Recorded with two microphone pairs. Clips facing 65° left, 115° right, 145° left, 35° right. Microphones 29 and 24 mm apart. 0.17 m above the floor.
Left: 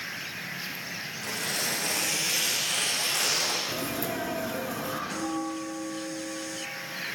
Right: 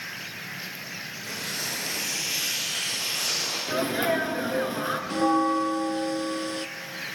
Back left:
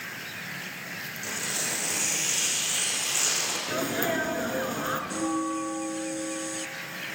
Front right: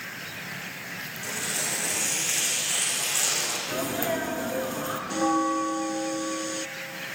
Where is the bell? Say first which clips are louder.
Right 9 dB, front right 4 dB; 90° right, 0.6 m.